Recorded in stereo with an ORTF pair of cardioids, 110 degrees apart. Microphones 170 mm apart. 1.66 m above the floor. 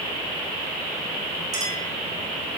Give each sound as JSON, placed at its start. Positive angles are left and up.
{"t": 1.5, "sound": "a clink", "azimuth_deg": -25, "distance_m": 3.5}